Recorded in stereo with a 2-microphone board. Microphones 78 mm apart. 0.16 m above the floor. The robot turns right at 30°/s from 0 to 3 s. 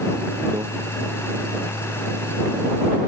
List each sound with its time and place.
0.5 s a microwave: 50° right (ahead or behind)